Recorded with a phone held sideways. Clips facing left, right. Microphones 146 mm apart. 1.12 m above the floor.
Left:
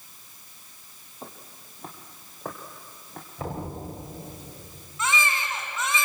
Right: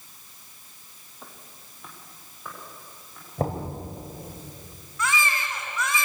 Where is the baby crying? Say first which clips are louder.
Even; 20° left (ahead or behind), 3.5 m.